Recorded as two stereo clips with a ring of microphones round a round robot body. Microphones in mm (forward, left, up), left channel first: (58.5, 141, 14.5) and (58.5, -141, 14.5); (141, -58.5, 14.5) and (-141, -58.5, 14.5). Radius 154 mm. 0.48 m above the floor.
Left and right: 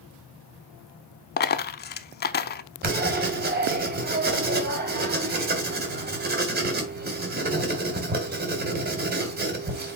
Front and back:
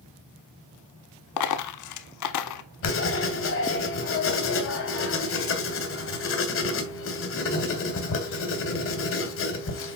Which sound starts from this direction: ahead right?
Writing, at 2.8 s.